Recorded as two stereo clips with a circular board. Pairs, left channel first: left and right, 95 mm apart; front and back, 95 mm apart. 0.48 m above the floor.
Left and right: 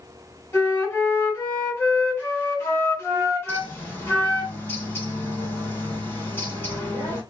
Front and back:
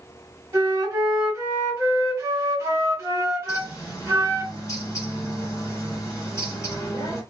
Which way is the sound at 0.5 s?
135° left.